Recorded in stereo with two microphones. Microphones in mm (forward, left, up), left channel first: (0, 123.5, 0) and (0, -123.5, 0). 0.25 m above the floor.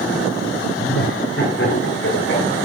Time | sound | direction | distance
0.8 | laughter | 60° left (ahead or behind) | 4.5 m